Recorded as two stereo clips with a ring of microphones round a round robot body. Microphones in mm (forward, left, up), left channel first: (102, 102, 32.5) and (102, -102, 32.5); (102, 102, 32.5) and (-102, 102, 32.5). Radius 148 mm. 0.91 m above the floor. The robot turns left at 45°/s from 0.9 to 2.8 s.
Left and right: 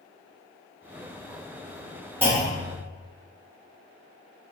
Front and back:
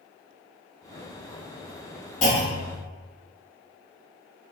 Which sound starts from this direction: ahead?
A clunk, at 2.2 s.